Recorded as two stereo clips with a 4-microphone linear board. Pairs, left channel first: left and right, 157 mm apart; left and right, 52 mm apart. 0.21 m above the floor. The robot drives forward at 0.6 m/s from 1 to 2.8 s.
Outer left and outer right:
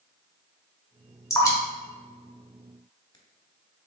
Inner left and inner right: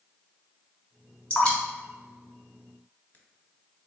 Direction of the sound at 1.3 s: 20° left (ahead or behind).